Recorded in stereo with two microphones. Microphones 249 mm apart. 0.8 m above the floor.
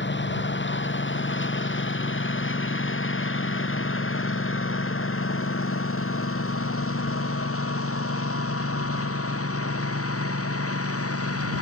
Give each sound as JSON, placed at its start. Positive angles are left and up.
{"t": 0.0, "sound": "a lawn mower", "side_deg": 50}